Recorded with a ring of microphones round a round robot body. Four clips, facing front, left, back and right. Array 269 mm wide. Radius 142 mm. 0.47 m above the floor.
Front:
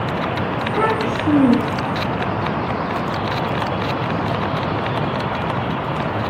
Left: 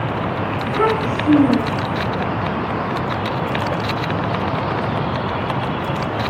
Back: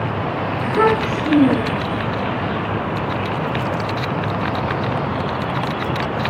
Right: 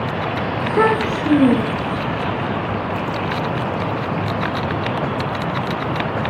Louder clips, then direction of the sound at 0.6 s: Right 2 dB, back 4 dB; 120° right.